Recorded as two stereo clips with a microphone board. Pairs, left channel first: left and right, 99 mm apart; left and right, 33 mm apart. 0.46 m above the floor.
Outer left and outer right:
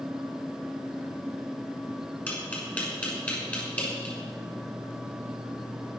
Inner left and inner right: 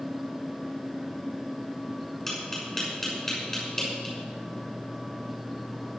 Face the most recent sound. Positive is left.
turn(degrees=15)  # may be behind; listen again after turning